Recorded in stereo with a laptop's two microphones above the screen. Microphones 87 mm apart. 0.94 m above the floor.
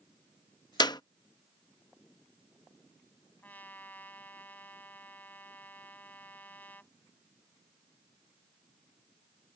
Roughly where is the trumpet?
Centre.